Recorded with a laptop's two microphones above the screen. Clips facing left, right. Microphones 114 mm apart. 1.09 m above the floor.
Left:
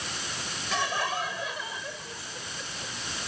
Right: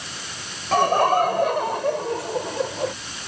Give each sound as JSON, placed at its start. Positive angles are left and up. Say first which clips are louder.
{"t": 0.7, "sound": "laughter", "louder": "right 13 dB", "side_deg": -50}